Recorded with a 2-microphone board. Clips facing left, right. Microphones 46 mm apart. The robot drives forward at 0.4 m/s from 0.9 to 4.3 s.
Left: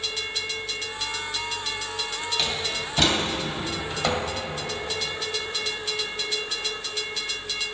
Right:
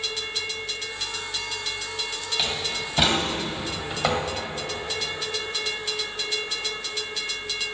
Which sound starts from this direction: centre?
A door slam, at 2.4 s.